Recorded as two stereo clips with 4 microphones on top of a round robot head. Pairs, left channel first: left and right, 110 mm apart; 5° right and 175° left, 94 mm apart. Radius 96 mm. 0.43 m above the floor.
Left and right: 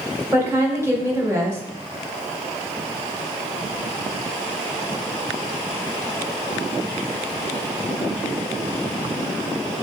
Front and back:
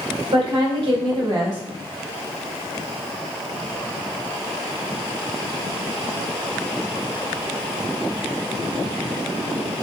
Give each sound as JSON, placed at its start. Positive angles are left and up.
{"t": 0.3, "sound": "a woman speaking", "azimuth_deg": -155, "distance_m": 1.9}